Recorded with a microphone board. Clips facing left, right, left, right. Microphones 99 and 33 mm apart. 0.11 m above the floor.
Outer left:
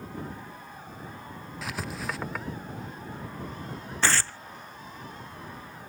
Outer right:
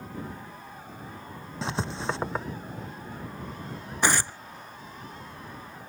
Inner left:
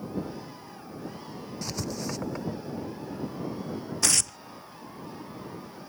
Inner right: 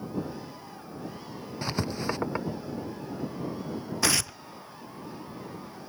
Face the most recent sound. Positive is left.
turn(degrees=-15)  # may be behind; listen again after turning